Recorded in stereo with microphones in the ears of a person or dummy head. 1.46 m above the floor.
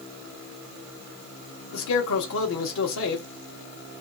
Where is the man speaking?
55° left (ahead or behind), 1.0 m.